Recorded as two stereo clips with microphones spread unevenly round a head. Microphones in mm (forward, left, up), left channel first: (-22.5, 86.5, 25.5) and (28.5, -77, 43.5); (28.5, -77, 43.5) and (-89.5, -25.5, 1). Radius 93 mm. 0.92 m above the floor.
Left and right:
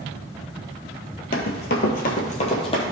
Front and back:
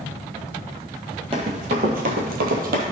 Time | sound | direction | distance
1.3 | running footsteps | 85° left | 1.2 m